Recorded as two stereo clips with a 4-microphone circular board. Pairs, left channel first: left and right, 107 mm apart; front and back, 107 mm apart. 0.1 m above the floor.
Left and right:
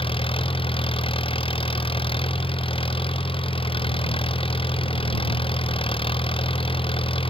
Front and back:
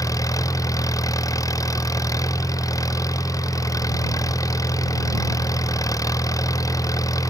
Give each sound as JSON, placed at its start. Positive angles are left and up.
{"t": 0.0, "sound": "an engine running", "azimuth_deg": 60}